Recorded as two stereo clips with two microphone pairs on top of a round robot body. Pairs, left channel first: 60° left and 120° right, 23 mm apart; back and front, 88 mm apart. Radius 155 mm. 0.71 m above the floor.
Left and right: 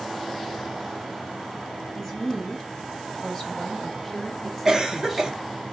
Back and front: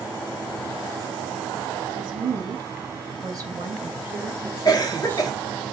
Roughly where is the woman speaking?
Ahead right.